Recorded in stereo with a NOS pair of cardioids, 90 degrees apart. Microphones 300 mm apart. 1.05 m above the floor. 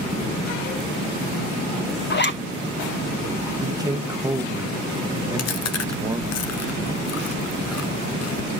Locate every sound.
2.1 s a zipper: 35° left, 1.3 m
3.6 s a man speaking: 10° right, 0.9 m
5.4 s chewing: 60° left, 0.9 m